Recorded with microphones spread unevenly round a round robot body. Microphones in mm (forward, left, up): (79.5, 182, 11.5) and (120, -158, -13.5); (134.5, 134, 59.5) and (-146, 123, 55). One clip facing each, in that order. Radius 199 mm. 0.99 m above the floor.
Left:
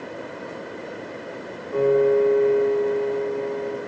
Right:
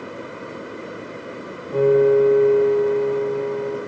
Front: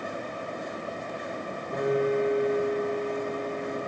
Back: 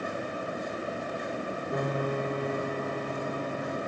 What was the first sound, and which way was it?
A piano, 110° right.